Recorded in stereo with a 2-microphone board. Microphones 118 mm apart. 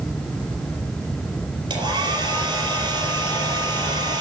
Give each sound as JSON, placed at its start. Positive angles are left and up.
{"t": 1.7, "sound": "a hair dryer", "side_deg": -40, "distance_m": 5.0}